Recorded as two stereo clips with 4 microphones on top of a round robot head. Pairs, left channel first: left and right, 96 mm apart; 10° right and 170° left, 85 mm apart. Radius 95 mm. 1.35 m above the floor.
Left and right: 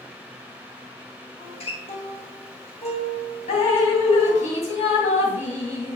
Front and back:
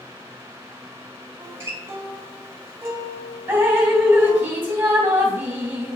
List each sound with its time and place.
1.4 s a guitar: 105° left, 2.0 m
3.5 s dripping: 95° left, 3 m